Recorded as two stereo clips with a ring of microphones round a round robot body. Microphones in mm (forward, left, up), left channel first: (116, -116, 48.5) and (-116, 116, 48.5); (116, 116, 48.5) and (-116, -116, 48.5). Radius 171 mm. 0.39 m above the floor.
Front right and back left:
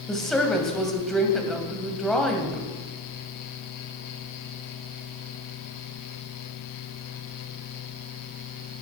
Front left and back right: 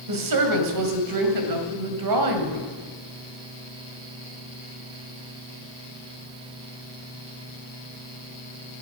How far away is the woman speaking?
About 2.5 m.